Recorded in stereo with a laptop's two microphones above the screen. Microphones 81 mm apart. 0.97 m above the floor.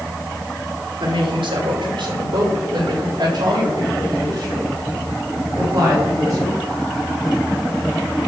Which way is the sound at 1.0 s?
80° right.